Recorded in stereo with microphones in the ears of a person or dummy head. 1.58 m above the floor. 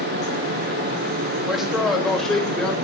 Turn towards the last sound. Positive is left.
turn(degrees=0)  # may be behind; listen again after turning